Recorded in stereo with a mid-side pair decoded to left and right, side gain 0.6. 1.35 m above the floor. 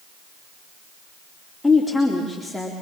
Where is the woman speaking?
5° left, 3 m.